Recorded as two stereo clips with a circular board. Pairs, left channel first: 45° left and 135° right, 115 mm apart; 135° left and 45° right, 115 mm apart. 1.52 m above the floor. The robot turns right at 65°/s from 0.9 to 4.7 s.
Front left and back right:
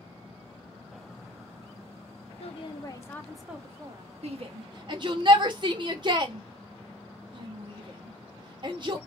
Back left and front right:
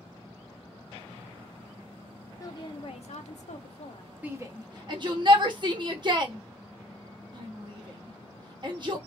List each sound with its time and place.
2.4 s a woman speaking: 70° left, 0.7 m; by 4.1 s 175° right, 0.7 m
4.2 s a shout: 120° right, 0.8 m; by 9.0 s 90° right, 0.8 m